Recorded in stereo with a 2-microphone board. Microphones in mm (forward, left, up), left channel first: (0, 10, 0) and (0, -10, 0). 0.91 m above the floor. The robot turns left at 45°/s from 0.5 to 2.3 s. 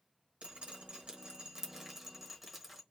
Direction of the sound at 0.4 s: 50° right (ahead or behind).